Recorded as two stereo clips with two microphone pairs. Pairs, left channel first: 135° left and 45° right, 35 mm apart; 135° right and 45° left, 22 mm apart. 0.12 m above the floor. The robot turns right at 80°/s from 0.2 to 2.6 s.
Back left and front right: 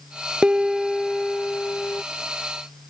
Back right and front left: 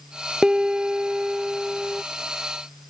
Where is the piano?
5° left; by 2.0 s 135° left.